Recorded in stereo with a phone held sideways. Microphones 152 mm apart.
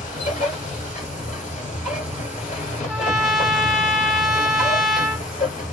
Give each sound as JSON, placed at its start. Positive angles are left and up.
{"t": 0.0, "sound": "a machine running", "side_deg": 60, "distance_m": 1.7}
{"t": 2.9, "sound": "a trumpet", "side_deg": -5, "distance_m": 0.8}